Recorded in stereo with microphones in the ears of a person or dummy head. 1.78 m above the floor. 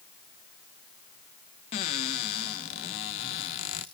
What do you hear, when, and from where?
1.7 s a cupboard door: 25° left (ahead or behind), 0.5 m